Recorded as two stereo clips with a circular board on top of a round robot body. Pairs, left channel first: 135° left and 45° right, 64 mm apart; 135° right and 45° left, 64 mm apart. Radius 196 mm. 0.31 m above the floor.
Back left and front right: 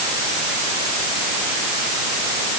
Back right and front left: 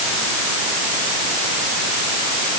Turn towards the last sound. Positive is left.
No sound to turn to.